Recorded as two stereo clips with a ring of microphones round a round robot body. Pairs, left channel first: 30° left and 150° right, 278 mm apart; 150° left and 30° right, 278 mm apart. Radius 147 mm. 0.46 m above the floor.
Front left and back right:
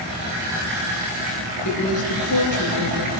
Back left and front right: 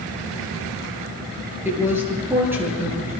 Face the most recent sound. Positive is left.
turn(degrees=55)